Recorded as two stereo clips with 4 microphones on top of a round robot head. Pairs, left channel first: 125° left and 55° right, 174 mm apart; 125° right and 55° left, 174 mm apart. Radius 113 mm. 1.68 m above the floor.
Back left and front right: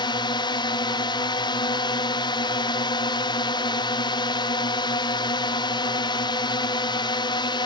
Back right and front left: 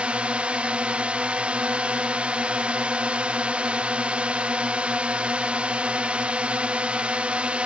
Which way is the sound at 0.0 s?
130° left.